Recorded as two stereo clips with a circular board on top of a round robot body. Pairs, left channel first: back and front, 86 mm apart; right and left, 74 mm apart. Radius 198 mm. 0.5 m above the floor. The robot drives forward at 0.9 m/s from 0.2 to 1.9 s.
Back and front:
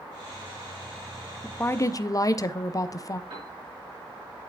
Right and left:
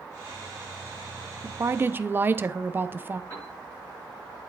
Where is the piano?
30° right, 5.5 m.